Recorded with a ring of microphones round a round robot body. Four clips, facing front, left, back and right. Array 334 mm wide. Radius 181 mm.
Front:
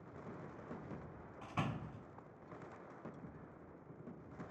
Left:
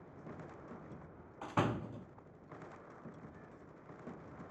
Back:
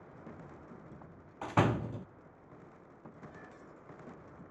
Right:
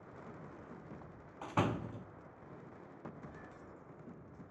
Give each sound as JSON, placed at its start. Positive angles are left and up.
{"t": 1.4, "sound": "a door slam", "azimuth_deg": 180, "distance_m": 0.6}